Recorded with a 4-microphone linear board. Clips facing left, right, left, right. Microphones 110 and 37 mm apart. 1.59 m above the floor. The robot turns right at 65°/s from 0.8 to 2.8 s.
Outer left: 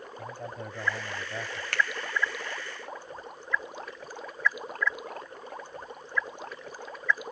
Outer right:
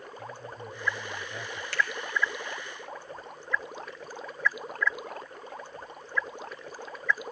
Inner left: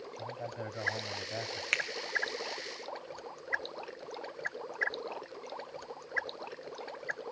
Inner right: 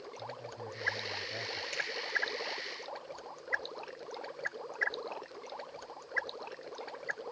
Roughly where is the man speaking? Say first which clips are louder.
Outer left 4 dB, inner left 4 dB; behind left.